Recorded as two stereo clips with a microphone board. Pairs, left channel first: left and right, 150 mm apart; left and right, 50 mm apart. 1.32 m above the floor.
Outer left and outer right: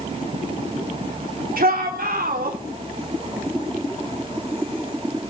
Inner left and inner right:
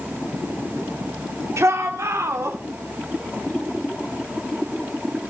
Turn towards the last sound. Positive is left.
turn(degrees=-85)